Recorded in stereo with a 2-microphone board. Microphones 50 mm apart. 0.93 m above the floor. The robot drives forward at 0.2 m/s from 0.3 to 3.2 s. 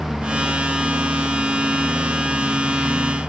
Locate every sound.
0.0 s a lawn mower: 5° right (ahead or behind)